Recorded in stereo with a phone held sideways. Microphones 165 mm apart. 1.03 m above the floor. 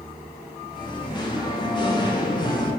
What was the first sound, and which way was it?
Singing, 25° left (ahead or behind).